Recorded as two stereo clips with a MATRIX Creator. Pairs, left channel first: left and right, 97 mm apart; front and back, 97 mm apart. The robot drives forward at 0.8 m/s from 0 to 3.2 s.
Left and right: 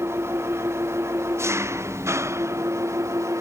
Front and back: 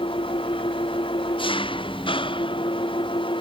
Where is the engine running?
25° right; by 3.4 s 30° right.